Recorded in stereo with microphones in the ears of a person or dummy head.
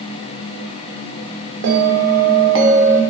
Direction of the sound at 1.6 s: 65° right (ahead or behind).